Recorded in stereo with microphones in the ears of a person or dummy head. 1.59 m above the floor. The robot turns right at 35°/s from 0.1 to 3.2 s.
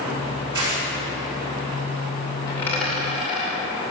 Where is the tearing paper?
20° right (ahead or behind), 3.5 m; by 0.8 s 30° right (ahead or behind), 3.5 m.